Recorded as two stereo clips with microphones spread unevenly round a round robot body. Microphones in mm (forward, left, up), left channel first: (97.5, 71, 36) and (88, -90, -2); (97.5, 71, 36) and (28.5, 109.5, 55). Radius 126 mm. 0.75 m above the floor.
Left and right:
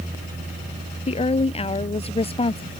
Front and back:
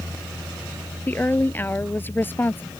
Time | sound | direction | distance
1.1 | a woman speaking | 40° left | ?